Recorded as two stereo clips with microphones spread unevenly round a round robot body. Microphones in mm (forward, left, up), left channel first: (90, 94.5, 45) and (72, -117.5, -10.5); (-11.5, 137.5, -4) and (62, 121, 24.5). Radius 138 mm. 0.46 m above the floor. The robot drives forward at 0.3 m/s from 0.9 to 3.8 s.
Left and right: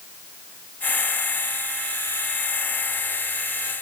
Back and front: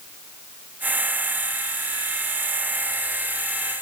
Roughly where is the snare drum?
I don't hear a snare drum.